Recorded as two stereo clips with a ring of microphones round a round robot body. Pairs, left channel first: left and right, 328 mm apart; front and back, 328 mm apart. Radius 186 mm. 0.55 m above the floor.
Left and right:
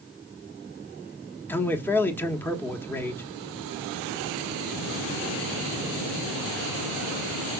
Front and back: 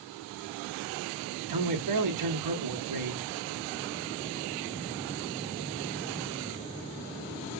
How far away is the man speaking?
About 1.4 m.